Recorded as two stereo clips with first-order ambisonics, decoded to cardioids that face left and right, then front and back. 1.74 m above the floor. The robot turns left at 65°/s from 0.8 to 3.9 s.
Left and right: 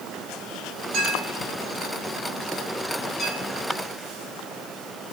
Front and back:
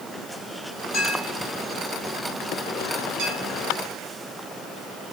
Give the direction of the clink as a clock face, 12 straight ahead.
2 o'clock.